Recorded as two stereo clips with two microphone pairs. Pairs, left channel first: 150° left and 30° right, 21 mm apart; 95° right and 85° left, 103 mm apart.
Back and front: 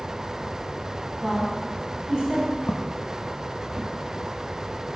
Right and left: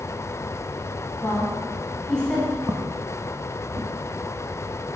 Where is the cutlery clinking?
No cutlery clinking in this recording.